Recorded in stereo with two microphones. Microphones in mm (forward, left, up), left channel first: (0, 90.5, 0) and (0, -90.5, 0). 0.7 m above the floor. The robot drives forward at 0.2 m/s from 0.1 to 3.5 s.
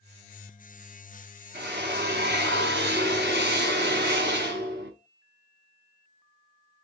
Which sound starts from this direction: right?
A drill, at 1.5 s.